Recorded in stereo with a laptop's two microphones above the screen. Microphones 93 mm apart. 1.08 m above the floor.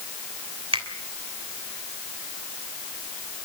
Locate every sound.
0.7 s a finger snap: 75° right (ahead or behind), 3 m